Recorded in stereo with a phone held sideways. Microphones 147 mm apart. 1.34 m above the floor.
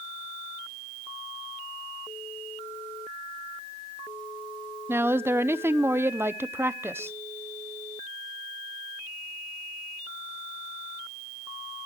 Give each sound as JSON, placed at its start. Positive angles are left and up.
{"t": 4.9, "sound": "a woman speaking", "side_deg": -15, "distance_m": 0.7}